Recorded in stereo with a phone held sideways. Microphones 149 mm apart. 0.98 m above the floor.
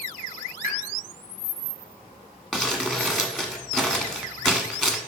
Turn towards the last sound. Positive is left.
turn(degrees=5)  # may be behind; listen again after turning